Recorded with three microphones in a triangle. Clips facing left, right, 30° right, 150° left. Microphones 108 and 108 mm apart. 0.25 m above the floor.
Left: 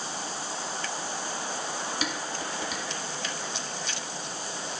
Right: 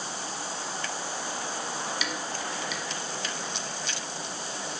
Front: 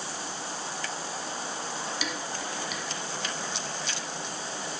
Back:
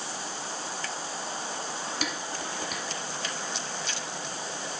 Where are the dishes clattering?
130° left, 1.4 m.